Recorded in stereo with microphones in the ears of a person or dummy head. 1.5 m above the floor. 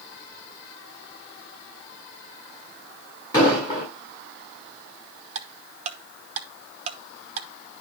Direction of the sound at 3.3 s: 25° left (ahead or behind).